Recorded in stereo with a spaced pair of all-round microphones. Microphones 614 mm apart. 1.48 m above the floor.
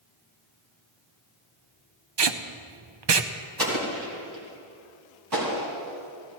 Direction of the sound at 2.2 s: 45° right (ahead or behind).